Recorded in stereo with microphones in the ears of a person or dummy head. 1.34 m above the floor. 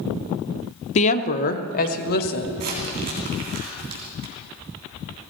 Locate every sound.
0.9 s a woman speaking: 45° left (ahead or behind), 0.7 m; by 2.5 s 60° left (ahead or behind), 1.8 m
2.6 s crumpling: 50° right (ahead or behind), 3 m